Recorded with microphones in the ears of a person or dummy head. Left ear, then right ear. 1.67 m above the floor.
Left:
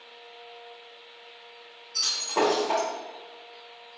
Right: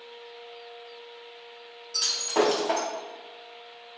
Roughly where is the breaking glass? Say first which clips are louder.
Right 1 dB; right.